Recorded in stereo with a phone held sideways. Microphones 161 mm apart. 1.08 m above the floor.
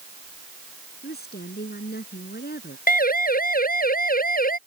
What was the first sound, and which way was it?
A woman speaking, 85° left.